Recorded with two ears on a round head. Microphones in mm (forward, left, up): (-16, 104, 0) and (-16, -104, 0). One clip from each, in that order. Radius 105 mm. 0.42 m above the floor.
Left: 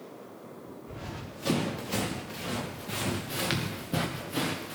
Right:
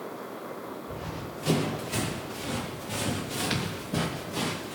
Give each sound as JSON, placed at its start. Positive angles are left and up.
{"t": 0.9, "sound": "running footsteps", "side_deg": 40, "distance_m": 4.0}